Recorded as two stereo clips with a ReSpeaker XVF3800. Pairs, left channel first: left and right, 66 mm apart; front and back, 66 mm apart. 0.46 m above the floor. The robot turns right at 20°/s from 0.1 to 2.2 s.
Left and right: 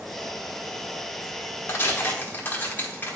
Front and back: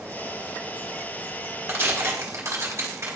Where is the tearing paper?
130° left, 1.4 m; by 3.2 s 140° left, 1.4 m.